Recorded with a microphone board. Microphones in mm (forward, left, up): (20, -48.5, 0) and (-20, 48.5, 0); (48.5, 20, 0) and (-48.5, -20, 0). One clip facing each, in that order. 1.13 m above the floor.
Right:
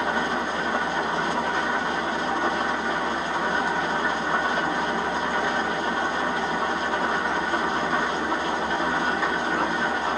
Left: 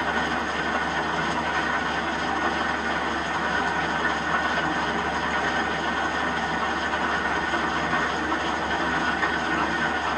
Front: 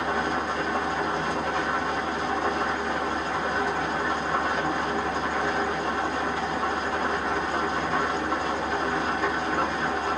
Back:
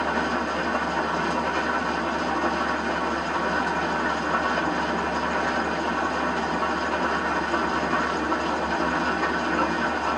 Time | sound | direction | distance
0.0 | an engine running | 140° right | 0.8 m